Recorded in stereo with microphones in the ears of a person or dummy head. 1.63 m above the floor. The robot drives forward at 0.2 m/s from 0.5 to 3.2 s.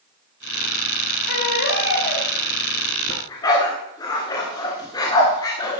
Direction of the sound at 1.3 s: 55° left (ahead or behind).